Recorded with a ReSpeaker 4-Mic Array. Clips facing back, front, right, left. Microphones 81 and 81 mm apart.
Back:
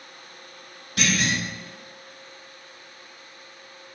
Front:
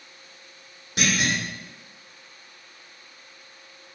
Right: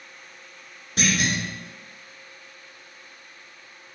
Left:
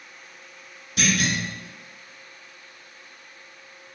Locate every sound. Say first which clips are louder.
1.0 s a clunk: even, even; 60° right, 1.6 m